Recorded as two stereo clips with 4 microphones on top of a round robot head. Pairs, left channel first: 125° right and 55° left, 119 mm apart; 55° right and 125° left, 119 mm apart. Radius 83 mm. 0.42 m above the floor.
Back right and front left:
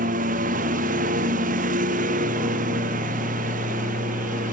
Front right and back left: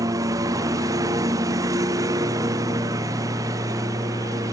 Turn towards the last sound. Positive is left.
turn(degrees=60)